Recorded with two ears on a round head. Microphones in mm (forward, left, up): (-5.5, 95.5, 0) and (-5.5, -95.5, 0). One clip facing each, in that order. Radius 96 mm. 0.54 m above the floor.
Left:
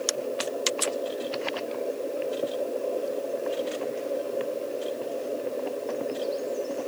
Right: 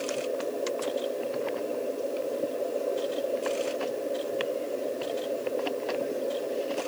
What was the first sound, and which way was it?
Only background noise.